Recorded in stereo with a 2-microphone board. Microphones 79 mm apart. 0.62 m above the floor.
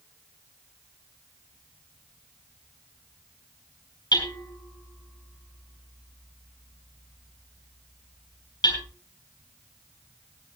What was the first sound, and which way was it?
Hammering, 65° left (ahead or behind).